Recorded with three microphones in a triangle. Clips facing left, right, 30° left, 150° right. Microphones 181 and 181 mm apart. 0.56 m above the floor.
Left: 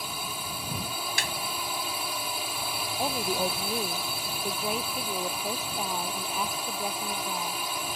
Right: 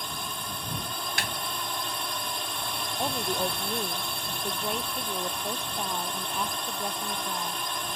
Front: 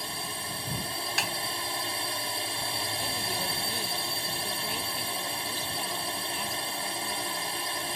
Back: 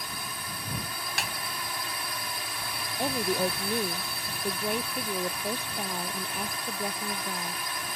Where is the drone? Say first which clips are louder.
Even, front 2 dB; 10° left.